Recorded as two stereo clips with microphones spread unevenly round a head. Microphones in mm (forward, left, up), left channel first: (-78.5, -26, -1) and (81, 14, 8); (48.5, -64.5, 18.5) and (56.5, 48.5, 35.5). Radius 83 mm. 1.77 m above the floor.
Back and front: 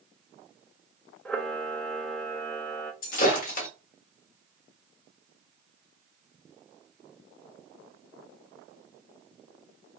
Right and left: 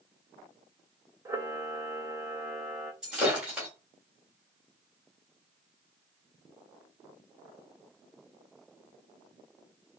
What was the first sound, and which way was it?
A camera shutter, 110° left.